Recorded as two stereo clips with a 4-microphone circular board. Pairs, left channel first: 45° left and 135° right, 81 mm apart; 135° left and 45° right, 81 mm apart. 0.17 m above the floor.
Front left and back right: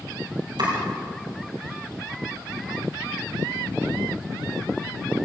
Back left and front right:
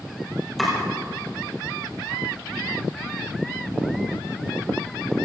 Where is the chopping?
135° right, 6 m.